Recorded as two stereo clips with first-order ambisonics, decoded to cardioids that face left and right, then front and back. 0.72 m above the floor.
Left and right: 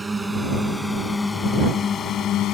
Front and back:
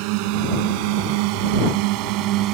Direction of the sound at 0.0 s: 170° right.